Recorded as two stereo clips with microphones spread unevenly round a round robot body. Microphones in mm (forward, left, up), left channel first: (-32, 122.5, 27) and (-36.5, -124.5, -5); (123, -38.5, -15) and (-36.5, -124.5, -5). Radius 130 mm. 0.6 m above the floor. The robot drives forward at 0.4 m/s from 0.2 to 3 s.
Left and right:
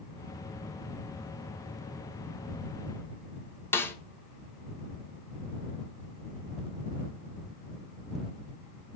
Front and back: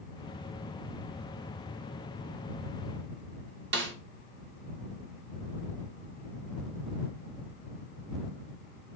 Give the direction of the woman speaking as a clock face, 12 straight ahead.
No woman speaking in this recording.